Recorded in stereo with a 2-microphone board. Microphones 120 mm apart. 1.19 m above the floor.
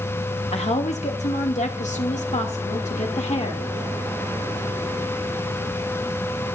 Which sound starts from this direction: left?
A woman speaking, at 0.5 s.